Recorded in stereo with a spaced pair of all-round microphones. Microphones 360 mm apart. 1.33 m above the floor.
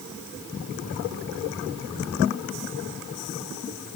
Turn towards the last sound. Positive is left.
No sound to turn to.